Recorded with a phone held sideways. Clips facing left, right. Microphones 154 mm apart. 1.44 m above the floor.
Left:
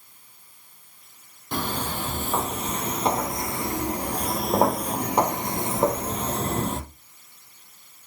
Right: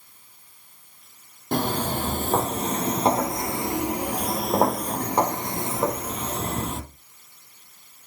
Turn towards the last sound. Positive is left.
turn(degrees=35)  # may be behind; listen again after turning